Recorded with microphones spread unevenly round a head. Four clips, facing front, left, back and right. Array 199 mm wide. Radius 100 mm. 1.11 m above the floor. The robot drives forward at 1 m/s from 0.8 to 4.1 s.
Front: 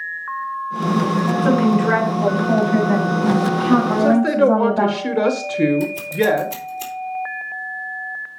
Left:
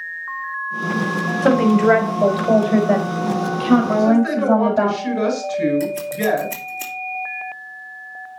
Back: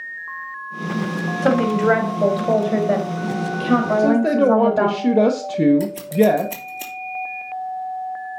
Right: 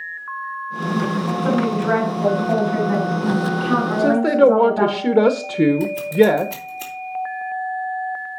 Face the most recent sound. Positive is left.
turn(degrees=170)